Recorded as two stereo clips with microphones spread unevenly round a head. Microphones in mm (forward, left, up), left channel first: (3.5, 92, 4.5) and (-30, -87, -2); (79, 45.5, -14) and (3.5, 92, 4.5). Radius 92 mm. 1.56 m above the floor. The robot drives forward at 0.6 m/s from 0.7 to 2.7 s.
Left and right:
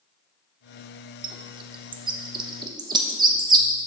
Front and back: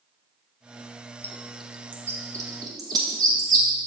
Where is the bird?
110° right, 0.6 m; by 3.7 s 165° right, 1.1 m.